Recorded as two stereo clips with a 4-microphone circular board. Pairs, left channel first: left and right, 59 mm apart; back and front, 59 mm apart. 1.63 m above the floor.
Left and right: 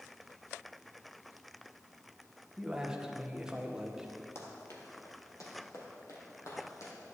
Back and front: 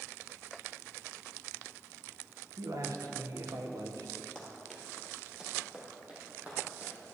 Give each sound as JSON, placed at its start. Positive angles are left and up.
{"t": 2.6, "sound": "a man speaking", "azimuth_deg": -10, "distance_m": 1.5}
{"t": 4.3, "sound": "running footsteps", "azimuth_deg": 110, "distance_m": 2.5}